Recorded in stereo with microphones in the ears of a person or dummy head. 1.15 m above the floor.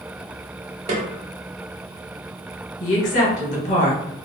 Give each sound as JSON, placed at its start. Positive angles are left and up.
{"t": 0.9, "sound": "a snare drum", "side_deg": -40, "distance_m": 0.7}
{"t": 2.8, "sound": "a woman speaking", "side_deg": 45, "distance_m": 1.1}